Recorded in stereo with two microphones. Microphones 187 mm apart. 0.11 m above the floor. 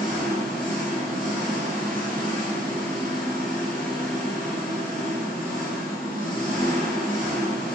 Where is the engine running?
50° right (ahead or behind), 1.5 m.